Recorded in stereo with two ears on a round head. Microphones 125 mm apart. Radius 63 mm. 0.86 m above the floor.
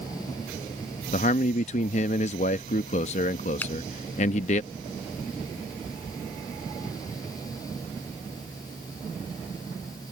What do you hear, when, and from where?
1.1 s a man speaking: 50° left (ahead or behind)
3.6 s a finger snap: 15° left (ahead or behind)